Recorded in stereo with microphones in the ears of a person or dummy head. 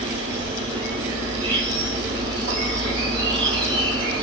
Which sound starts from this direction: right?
An insect, at 0.0 s.